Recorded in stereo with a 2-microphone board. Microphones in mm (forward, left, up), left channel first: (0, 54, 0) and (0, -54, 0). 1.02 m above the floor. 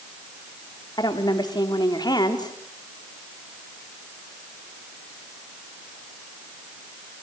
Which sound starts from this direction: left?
A woman speaking, at 1.0 s.